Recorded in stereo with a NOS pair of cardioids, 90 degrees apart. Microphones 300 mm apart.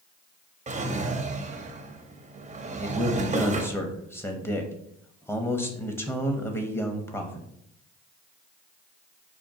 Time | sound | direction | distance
0.7 | a drawer | 25° right | 0.8 m
2.8 | a man speaking | 10° left | 1.0 m